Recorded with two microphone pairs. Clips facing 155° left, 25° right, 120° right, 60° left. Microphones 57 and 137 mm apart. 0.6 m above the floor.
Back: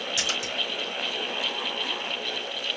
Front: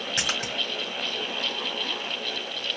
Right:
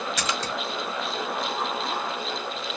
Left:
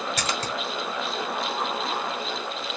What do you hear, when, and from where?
0.2 s a splash: 20° left, 1.6 m